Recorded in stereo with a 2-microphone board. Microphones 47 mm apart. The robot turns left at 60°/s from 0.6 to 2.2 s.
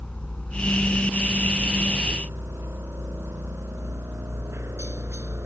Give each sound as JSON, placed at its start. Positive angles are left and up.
{"t": 0.0, "sound": "a helicopter", "side_deg": 25}